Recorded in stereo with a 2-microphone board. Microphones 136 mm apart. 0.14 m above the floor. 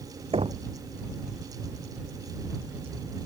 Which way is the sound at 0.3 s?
40° right (ahead or behind).